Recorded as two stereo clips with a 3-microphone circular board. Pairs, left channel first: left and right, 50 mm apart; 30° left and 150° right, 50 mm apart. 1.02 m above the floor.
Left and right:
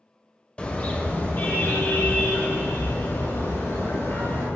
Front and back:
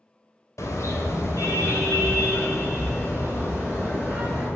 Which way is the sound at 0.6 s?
25° left.